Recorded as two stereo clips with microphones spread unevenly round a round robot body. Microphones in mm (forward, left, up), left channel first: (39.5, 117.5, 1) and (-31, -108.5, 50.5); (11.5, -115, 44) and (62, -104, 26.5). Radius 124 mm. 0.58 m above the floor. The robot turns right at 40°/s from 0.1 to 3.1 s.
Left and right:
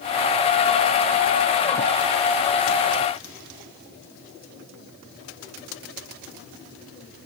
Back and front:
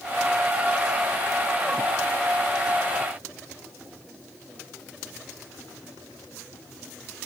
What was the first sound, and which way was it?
Only background noise.